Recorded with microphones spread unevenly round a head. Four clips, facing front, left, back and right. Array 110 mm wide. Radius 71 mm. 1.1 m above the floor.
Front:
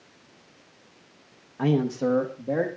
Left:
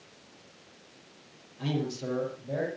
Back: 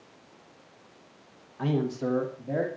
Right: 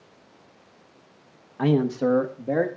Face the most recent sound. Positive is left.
turn(degrees=-65)